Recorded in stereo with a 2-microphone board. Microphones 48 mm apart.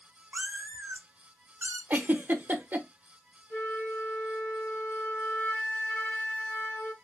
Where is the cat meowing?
50° right (ahead or behind), 1.0 m.